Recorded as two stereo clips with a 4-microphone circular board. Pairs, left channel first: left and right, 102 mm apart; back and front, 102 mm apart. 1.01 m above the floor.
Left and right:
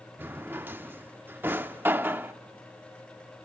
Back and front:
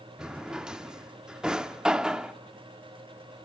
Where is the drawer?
70° right, 0.5 m.